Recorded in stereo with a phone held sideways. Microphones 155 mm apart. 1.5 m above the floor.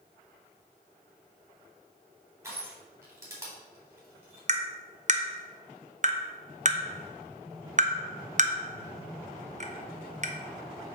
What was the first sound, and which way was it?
Crushing, 20° right (ahead or behind).